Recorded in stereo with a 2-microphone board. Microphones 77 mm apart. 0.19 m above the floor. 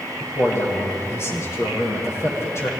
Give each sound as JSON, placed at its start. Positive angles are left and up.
{"t": 0.2, "sound": "a man speaking", "side_deg": 35, "distance_m": 7.0}